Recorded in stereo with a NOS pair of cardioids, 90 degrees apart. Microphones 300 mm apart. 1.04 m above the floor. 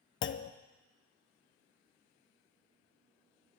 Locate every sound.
0.2 s a clunk: 45° left, 0.6 m